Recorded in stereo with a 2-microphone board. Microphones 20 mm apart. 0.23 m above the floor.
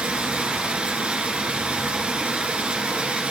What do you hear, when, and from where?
0.0 s running water: 65° right (ahead or behind), 1.4 m